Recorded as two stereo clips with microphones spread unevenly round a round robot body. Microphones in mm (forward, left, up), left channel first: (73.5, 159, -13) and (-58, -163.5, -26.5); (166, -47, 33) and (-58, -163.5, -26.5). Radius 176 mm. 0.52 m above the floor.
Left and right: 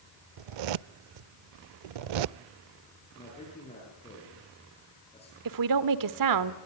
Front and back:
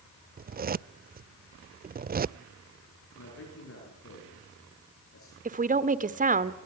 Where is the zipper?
90° right, 0.5 m.